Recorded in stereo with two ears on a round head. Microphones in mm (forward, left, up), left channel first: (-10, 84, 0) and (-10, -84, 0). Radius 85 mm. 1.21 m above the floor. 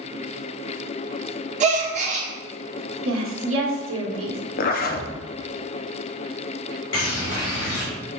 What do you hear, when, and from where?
1.6 s a gasp: 35° right (ahead or behind), 0.9 m
3.0 s a woman speaking: 80° right, 1.3 m
4.6 s a zipper: 50° left (ahead or behind), 0.5 m
6.9 s a bird: 70° left (ahead or behind), 2 m